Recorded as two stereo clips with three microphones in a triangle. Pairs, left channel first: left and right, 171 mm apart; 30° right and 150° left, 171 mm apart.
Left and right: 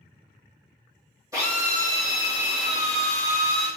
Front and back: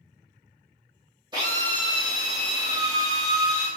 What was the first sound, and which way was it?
A drill, 155° right.